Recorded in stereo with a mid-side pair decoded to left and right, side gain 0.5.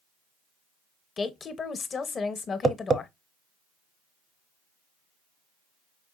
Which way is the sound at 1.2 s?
40° left.